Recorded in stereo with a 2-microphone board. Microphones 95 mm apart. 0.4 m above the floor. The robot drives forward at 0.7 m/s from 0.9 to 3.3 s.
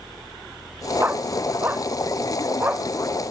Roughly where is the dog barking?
Right.